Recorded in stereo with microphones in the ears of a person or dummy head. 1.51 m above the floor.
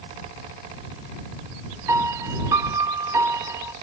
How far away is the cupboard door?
No cupboard door in this recording.